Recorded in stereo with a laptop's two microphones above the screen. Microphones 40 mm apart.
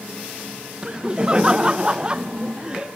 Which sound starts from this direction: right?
Laughter, at 0.8 s.